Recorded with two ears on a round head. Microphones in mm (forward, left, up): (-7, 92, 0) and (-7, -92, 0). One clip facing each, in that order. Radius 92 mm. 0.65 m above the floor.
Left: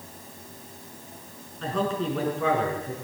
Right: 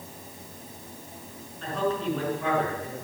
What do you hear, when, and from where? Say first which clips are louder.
1.6 s a man speaking: left 1 dB; 70° left (ahead or behind), 6.5 m